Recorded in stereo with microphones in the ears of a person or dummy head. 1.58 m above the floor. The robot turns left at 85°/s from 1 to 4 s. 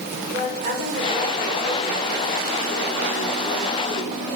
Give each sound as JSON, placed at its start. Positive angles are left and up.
{"t": 0.3, "sound": "a woman speaking", "azimuth_deg": -140, "distance_m": 6.5}